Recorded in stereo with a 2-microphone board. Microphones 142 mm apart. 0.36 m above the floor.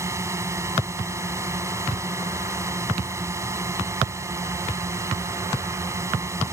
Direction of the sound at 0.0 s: 20° right (ahead or behind).